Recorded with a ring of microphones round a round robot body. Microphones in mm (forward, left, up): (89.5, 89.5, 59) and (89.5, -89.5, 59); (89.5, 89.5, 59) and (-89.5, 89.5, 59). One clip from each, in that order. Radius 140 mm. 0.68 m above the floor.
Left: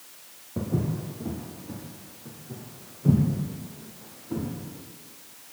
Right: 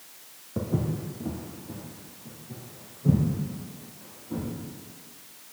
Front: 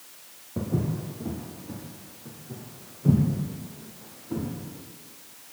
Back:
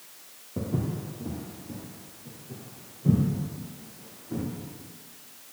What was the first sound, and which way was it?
Footsteps, 40° right.